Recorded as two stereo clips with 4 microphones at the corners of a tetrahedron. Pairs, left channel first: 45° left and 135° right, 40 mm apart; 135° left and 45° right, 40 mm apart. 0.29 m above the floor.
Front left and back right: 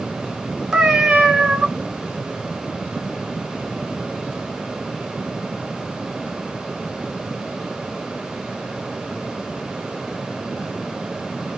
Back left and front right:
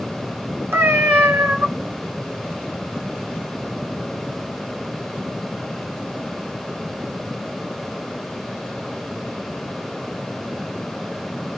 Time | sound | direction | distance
0.7 | a cat meowing | 60° right | 2 m